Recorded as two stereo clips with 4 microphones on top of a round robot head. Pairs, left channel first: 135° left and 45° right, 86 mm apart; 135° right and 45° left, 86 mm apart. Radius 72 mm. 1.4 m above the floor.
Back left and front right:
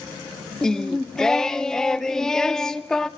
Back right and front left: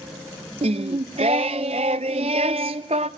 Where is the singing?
55° left, 0.5 m.